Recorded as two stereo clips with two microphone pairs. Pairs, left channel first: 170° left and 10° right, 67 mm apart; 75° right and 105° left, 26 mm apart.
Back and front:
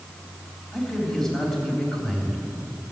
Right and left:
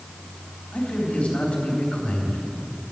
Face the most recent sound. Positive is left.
turn(degrees=-110)